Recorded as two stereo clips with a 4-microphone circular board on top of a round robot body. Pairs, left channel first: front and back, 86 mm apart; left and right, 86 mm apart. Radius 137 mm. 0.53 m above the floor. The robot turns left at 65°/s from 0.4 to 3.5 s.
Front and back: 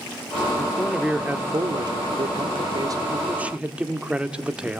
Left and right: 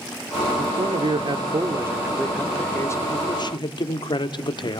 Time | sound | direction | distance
0.6 | a man speaking | 65° right | 1.8 m